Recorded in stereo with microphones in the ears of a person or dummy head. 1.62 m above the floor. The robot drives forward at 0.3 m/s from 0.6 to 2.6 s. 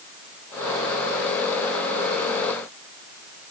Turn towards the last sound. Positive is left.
No sound to turn to.